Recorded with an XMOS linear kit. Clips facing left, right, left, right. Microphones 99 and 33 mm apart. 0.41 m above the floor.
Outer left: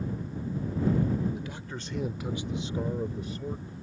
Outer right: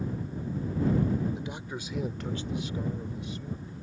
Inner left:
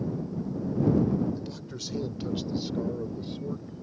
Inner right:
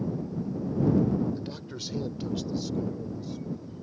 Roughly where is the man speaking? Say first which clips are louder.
Outer right 1 dB, inner right 1 dB; right.